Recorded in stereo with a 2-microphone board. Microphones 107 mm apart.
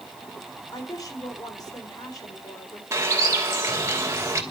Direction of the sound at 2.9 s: 25° right (ahead or behind).